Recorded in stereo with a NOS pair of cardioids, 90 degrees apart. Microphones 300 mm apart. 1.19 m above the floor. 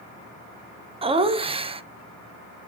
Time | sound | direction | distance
1.0 | laughter | 20° right | 0.5 m